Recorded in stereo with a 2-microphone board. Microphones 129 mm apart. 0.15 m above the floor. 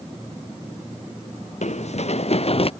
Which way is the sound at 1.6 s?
65° left (ahead or behind).